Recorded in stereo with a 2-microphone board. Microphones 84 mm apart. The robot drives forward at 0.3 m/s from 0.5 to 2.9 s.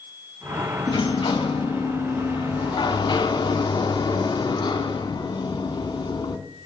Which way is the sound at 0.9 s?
70° left (ahead or behind).